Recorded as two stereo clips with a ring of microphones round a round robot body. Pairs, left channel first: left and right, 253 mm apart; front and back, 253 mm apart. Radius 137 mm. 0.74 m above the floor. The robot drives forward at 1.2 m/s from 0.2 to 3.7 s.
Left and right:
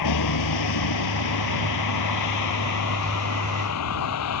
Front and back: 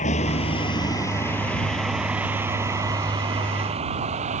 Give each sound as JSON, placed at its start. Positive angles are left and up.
{"t": 0.0, "sound": "a vehicle", "azimuth_deg": 65}